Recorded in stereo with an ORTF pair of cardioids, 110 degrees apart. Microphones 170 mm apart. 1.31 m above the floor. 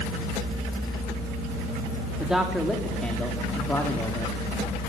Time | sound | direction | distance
2.2 | a man speaking | 5° right | 3.5 m